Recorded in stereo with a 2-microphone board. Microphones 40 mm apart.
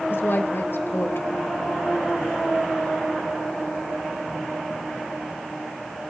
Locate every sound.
0.1 s a woman speaking: 70° left (ahead or behind), 3 m